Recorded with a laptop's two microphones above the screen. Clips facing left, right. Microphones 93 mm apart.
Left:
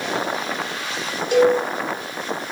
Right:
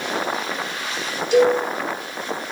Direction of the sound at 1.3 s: 50° left (ahead or behind).